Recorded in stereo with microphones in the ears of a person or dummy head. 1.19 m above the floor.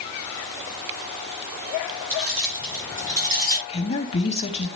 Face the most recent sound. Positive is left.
turn(degrees=35)  # may be behind; listen again after turning